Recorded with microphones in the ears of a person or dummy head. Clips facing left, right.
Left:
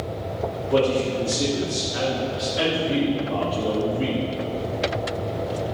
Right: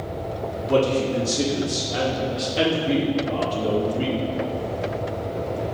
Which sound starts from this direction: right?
A man speaking, at 0.7 s.